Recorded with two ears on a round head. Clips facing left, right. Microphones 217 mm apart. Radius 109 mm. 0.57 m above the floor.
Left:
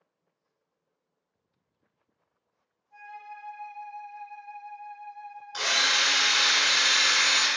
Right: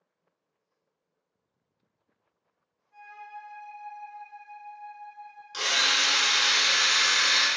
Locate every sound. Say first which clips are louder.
2.9 s a flute: left 1 dB; 10° right (ahead or behind), 1.9 m
5.5 s a drill: even; 30° right (ahead or behind), 1.6 m